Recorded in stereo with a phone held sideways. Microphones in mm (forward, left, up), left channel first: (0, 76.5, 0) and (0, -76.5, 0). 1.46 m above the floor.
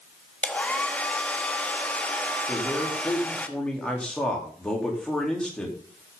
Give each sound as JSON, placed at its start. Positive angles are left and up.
{"t": 0.4, "sound": "a hair dryer", "side_deg": 10, "distance_m": 1.1}
{"t": 2.5, "sound": "a man speaking", "side_deg": 5, "distance_m": 3.5}